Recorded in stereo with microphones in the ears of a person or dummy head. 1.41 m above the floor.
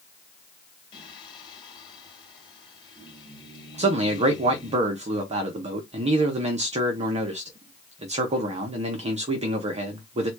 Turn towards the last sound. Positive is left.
turn(degrees=-35)  # may be behind; listen again after turning